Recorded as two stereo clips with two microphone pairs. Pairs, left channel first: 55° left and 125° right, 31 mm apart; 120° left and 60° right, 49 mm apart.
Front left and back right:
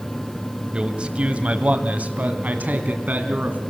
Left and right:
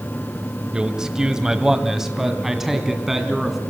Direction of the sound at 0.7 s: 115° right.